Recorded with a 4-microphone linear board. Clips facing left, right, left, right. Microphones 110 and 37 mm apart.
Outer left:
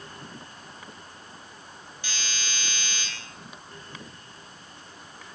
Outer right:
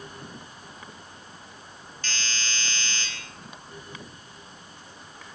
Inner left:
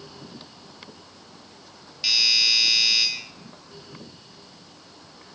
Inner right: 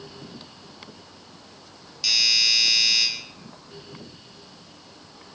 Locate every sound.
2.0 s a doorbell: 15° left (ahead or behind), 6 m